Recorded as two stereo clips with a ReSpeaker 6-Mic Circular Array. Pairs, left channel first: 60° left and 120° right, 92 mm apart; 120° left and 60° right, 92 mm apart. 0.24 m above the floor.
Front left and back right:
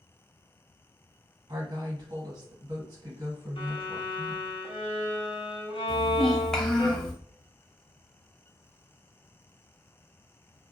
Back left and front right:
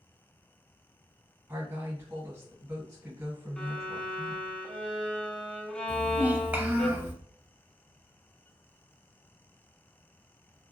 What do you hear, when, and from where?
1.5 s a woman speaking: 110° right, 1.6 m
3.6 s a violin: 40° left, 0.6 m
5.9 s a child speaking: 15° right, 0.6 m